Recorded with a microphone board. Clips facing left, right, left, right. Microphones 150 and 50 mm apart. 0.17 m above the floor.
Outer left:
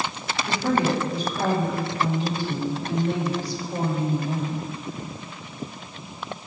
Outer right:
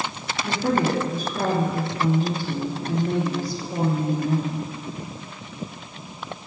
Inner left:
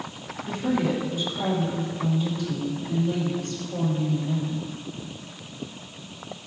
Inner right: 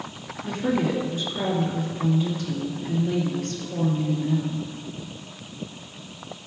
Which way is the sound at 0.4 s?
45° right (ahead or behind).